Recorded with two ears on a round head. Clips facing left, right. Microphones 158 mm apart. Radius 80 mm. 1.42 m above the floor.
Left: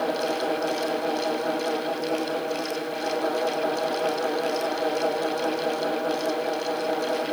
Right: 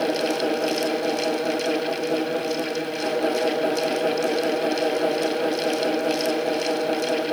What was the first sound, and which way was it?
Only background noise.